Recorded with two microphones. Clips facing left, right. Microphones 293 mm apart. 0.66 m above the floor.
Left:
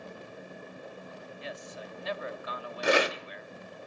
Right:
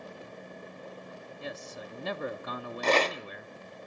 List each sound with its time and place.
1.4 s a man speaking: 55° right (ahead or behind), 0.9 m
2.8 s a rattle: 10° left (ahead or behind), 0.7 m